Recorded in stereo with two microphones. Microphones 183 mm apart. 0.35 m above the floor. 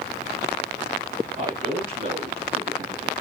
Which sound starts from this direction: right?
A man speaking, at 1.4 s.